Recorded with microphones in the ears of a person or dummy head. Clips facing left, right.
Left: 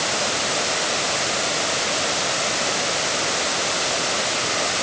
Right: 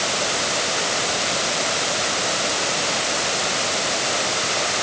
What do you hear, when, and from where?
Only background noise.